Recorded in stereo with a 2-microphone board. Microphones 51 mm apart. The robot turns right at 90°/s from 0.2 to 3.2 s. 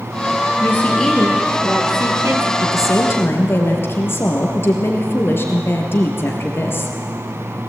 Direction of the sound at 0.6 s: 130° left.